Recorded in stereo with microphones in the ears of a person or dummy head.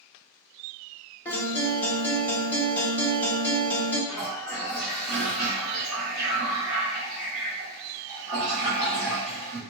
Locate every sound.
1.2 s a guitar: 10° left (ahead or behind), 0.7 m
4.1 s a toilet flushing: 5° left (ahead or behind), 1.0 m